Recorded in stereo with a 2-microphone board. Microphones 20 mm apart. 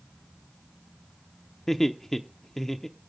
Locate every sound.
1.7 s laughter: 15° left (ahead or behind), 0.8 m